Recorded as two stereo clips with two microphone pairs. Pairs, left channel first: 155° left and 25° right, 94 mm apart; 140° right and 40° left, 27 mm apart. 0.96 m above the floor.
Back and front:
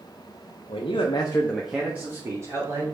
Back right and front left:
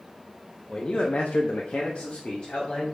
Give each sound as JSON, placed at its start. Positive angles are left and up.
{"t": 0.7, "sound": "a man speaking", "azimuth_deg": 165, "distance_m": 1.1}